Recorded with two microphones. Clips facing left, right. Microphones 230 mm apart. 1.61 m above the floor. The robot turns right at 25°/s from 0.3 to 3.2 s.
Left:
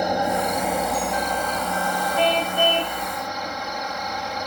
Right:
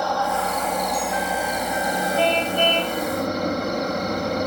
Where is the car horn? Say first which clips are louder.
Even; centre (ahead or behind); by 3.0 s 20° left (ahead or behind).